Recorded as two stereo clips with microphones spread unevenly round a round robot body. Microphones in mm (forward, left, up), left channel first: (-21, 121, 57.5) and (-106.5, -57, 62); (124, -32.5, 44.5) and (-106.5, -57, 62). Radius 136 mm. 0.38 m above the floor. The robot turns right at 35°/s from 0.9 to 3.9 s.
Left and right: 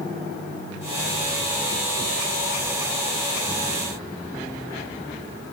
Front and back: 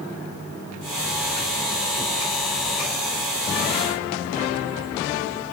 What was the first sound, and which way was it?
Only background noise.